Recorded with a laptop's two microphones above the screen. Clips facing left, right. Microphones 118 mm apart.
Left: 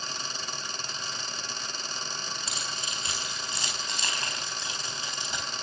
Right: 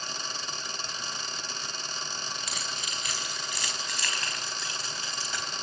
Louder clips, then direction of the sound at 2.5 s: Left 1 dB; 30° left (ahead or behind).